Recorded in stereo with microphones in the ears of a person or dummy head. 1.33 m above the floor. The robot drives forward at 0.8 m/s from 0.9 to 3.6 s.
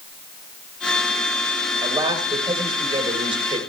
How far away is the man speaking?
About 5.5 m.